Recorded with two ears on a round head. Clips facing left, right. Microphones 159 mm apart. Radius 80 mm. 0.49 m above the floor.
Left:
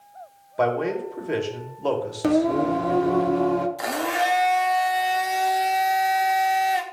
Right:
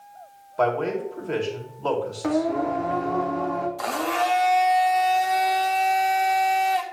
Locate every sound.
0.6 s a man speaking: 15° left (ahead or behind), 1.8 m
2.2 s singing: 40° left (ahead or behind), 0.7 m
3.8 s a blender: 15° left (ahead or behind), 0.9 m